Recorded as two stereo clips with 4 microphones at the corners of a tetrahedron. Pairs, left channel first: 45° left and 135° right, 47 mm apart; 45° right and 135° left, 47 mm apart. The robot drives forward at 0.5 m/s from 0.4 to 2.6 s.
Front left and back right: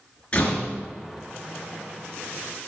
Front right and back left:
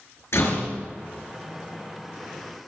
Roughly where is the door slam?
Ahead.